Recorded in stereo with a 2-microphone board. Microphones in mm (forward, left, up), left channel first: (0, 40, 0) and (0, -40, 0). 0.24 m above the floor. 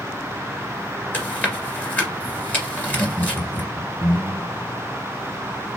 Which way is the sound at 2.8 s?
5° left (ahead or behind).